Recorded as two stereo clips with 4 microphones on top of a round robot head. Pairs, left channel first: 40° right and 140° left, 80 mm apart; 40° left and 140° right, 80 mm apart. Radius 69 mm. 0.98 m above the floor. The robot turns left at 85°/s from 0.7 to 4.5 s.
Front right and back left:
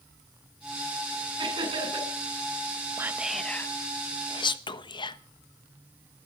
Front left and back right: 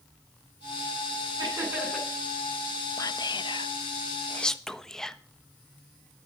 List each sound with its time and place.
1.4 s laughter: 175° left, 9.5 m; by 2.1 s 120° left, 9.5 m
3.0 s whispering: 85° left, 1.2 m; by 5.2 s 45° right, 1.2 m